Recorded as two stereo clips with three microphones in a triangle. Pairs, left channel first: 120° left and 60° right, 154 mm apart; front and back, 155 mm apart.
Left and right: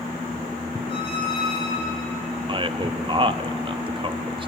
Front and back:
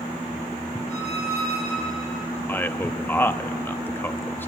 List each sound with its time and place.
0.9 s a squeak: 175° left, 7 m
2.5 s a man speaking: 65° right, 1.0 m